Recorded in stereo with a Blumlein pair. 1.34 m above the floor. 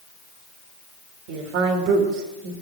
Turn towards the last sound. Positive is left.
turn(degrees=-45)